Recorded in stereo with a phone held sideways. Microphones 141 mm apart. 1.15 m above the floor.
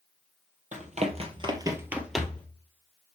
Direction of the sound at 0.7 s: 60° right (ahead or behind).